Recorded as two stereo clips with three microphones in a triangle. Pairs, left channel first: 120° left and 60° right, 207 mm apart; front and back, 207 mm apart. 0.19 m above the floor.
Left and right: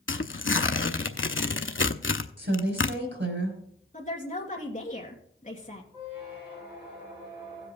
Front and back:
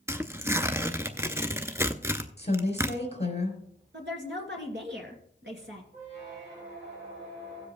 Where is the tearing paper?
105° left, 0.6 m.